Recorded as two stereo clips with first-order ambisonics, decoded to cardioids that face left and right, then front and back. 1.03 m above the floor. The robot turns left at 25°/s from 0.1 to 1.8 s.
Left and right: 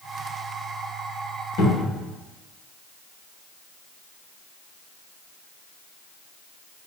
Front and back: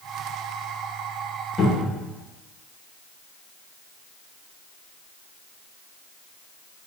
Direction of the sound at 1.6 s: 75° left.